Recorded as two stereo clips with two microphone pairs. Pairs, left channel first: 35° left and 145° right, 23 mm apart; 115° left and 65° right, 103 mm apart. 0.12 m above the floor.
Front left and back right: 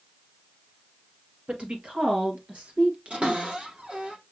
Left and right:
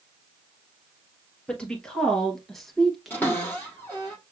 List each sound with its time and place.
1.5 s a woman speaking: 165° right, 2.5 m; by 4.1 s 130° right, 1.4 m
3.1 s a cupboard door: 175° right, 3.5 m